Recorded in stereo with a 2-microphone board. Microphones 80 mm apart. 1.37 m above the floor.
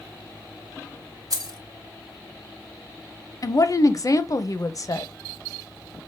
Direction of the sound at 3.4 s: 45° left (ahead or behind).